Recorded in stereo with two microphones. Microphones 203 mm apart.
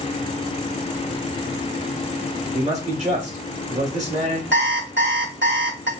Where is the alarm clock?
65° right (ahead or behind), 1.1 m.